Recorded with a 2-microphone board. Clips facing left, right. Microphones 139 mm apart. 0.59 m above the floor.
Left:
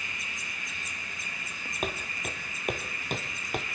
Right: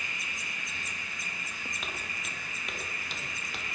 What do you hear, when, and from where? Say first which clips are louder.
1.8 s footsteps: left 11 dB; 50° left (ahead or behind), 2.5 m